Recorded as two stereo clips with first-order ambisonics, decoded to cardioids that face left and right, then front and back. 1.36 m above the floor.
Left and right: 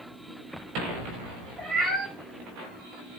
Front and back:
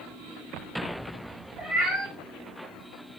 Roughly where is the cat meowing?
Behind right.